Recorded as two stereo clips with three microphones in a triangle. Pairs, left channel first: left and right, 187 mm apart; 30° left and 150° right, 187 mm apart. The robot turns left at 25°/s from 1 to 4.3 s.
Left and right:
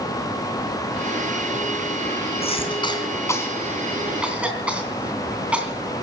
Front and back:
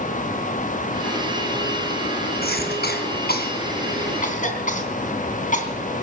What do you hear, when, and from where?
2.4 s a cough: 40° left, 3 m; by 5.7 s 5° right, 3 m